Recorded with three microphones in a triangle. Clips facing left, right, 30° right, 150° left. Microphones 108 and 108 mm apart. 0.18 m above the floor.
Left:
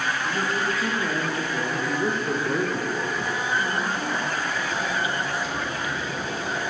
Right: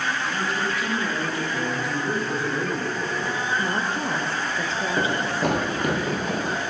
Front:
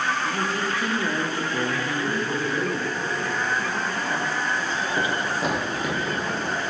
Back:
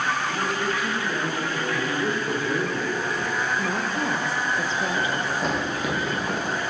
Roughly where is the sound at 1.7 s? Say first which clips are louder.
Left 1 dB, back 1 dB; left.